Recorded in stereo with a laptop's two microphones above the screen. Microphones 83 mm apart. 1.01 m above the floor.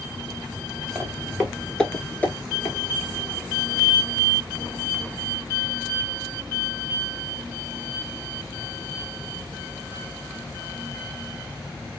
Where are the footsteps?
20° right (ahead or behind), 1.0 m; by 2.8 s 35° left (ahead or behind), 1.2 m.